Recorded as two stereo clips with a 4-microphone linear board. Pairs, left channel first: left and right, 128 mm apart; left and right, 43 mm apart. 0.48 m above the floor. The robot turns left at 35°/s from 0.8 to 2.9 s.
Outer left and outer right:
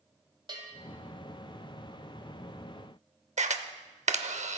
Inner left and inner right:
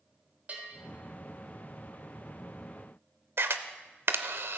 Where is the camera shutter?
65° right (ahead or behind), 0.7 m.